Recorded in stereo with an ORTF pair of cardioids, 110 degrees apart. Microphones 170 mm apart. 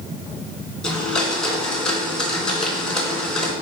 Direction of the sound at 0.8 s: 5° left.